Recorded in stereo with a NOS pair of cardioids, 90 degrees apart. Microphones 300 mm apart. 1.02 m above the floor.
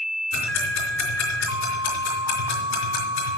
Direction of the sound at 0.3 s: 65° left.